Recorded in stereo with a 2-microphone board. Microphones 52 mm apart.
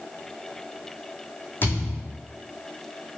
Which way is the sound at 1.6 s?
40° left (ahead or behind).